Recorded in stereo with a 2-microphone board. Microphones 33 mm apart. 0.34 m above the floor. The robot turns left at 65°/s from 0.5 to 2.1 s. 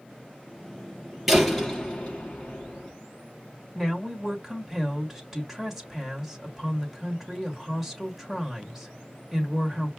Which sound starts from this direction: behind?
A door slam, at 1.3 s.